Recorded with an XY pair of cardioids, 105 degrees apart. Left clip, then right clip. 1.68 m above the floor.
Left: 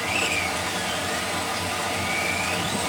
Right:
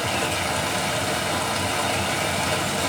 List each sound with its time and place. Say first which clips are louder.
0.0 s running water: even; 65° right, 1.2 m